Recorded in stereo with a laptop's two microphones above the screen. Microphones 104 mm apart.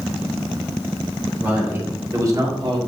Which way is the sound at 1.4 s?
20° right (ahead or behind).